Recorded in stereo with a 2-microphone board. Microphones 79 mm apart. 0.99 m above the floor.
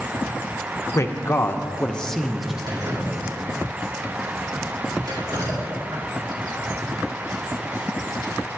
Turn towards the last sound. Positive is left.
turn(degrees=-60)  # may be behind; listen again after turning